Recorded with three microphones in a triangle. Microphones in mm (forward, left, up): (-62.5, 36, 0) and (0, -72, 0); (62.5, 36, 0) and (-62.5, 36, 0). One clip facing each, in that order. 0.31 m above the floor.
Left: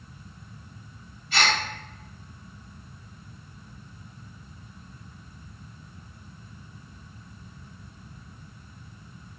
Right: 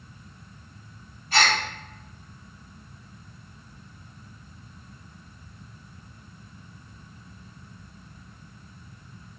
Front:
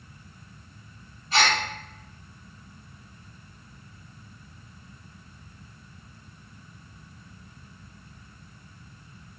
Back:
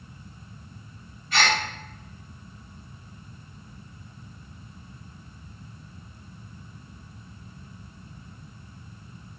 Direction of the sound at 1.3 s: 40° right.